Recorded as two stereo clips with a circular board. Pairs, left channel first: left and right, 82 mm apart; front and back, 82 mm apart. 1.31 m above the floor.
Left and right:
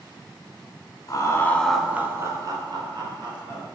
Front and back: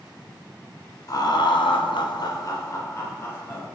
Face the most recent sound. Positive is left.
turn(degrees=-65)